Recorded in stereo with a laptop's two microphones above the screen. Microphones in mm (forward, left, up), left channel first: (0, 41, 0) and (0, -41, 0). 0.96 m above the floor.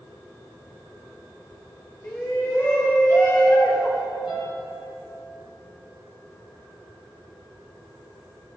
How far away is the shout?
About 4 m.